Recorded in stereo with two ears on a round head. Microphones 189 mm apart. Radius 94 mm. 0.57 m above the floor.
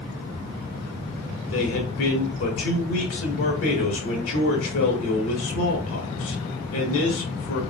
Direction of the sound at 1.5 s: 65° left (ahead or behind).